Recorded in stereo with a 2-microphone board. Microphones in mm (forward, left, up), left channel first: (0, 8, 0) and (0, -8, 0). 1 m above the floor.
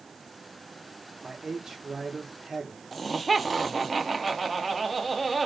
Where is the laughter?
Centre (ahead or behind), 0.6 m.